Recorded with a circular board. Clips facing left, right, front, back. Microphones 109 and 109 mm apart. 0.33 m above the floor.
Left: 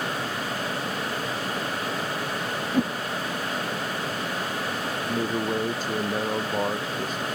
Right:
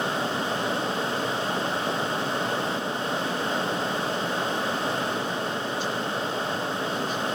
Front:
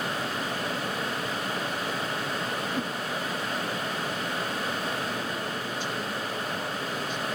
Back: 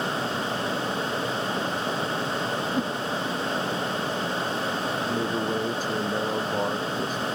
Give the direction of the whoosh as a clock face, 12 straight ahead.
8 o'clock.